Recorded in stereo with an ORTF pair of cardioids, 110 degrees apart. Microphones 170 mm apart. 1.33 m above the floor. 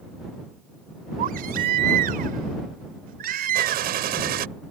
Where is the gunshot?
65° right.